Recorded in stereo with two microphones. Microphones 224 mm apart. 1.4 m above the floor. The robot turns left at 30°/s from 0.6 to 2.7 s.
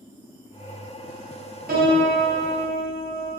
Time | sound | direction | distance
1.7 | a piano | 40° right | 0.6 m